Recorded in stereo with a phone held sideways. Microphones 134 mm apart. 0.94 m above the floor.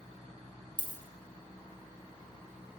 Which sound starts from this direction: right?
A dropped coin, at 0.8 s.